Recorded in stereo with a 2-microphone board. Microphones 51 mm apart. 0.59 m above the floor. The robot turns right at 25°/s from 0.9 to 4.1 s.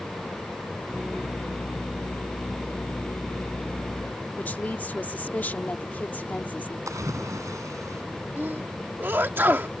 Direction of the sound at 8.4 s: 40° right (ahead or behind).